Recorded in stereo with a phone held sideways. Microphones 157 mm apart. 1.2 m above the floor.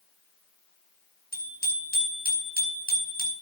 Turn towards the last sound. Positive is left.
turn(degrees=75)  # may be behind; listen again after turning